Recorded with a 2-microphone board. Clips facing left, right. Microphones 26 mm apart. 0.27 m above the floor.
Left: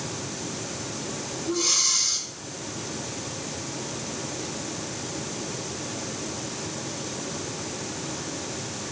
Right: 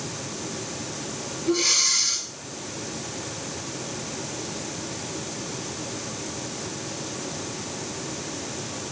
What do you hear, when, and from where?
1.5 s breathing: 70° right (ahead or behind), 3.5 m